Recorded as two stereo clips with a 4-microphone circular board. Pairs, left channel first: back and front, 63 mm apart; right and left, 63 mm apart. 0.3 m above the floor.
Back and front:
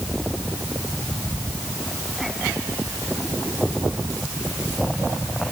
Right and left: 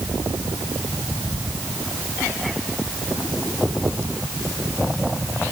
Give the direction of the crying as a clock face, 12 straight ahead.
I don't hear crying.